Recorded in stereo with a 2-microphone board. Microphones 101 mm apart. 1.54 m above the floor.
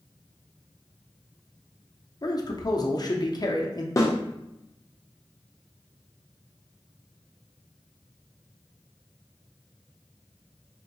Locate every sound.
2.2 s a man speaking: 40° left (ahead or behind), 0.6 m
4.0 s a snare drum: 35° left (ahead or behind), 0.7 m